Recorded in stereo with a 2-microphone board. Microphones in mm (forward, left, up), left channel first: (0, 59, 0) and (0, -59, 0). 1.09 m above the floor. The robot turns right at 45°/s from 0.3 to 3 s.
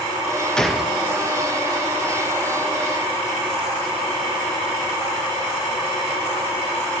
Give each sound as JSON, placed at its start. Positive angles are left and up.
{"t": 0.6, "sound": "a gunshot", "side_deg": 5, "distance_m": 1.0}